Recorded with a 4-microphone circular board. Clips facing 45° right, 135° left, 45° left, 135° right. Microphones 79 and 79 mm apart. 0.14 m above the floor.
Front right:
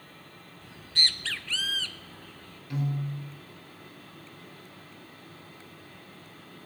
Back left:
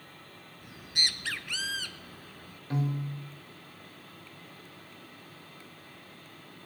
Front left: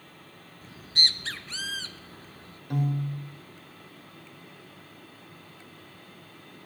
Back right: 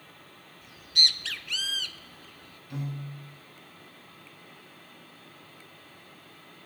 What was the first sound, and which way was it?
A bird, 70° left.